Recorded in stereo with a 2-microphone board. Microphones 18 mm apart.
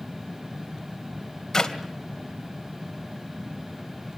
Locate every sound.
1.5 s a clap: 25° left (ahead or behind), 2.5 m